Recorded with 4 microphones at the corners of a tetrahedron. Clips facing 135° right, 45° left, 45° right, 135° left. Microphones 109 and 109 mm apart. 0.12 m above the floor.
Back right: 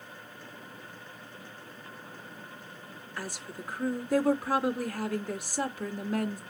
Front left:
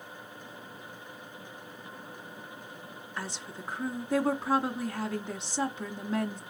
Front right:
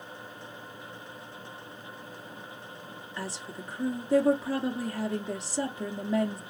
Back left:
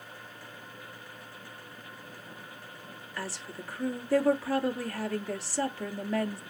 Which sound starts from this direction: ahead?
A woman speaking, at 3.2 s.